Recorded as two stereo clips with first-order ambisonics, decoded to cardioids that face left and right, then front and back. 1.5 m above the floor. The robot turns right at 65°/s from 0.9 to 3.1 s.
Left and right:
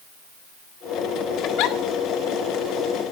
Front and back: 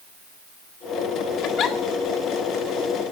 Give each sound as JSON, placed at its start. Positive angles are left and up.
{"t": 1.4, "sound": "a giggle", "azimuth_deg": 45, "distance_m": 1.9}